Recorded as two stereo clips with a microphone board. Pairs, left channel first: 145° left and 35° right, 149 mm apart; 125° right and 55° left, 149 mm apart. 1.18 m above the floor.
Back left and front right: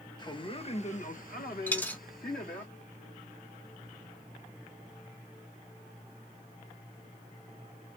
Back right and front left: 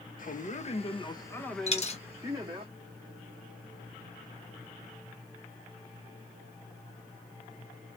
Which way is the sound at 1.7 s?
140° right.